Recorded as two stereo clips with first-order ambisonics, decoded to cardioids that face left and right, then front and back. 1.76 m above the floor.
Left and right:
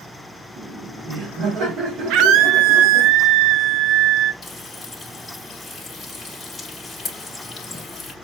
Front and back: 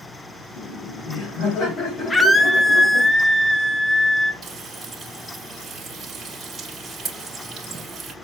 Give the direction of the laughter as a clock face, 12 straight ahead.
1 o'clock.